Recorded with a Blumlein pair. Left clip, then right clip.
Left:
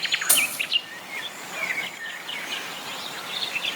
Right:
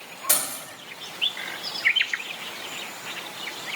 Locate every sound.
0.3 s keys jangling: 10° right, 1.9 m